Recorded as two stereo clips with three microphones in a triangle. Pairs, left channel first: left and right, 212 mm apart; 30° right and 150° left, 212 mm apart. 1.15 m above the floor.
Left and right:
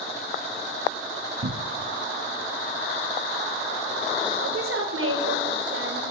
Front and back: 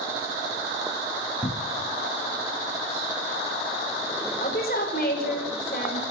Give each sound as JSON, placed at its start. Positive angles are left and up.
{"t": 1.4, "sound": "a cupboard door", "azimuth_deg": -95, "distance_m": 0.6}
{"t": 4.4, "sound": "a woman speaking", "azimuth_deg": -75, "distance_m": 4.5}